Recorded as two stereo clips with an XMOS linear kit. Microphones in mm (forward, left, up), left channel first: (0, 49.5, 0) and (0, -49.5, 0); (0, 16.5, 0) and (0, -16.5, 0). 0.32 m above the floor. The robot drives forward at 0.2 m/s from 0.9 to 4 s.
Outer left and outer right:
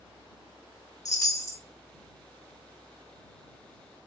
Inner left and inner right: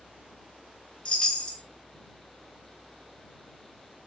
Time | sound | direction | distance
1.1 | a chime | 35° left (ahead or behind) | 0.5 m